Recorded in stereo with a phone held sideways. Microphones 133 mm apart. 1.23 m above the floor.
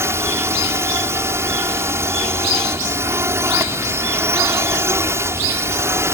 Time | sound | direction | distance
0.0 | a drone | 20° right (ahead or behind) | ?